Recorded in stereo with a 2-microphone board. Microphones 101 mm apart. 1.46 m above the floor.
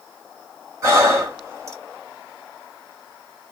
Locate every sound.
0.8 s breathing: 30° right (ahead or behind), 1.8 m